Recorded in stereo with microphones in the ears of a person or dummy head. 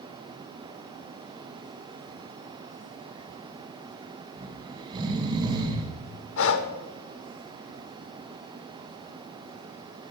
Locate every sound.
4.4 s snoring: 20° right (ahead or behind), 4.5 m
6.4 s breathing: 75° left (ahead or behind), 1.9 m